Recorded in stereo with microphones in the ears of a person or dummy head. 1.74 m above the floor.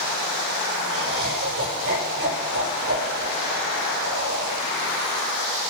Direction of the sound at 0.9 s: 70° right (ahead or behind).